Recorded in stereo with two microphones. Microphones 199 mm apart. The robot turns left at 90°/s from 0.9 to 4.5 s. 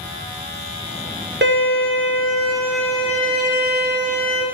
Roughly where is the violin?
Ahead right.